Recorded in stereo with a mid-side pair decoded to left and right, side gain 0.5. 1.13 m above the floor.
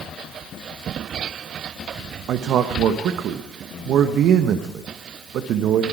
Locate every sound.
2.3 s a man speaking: 65° right, 1.1 m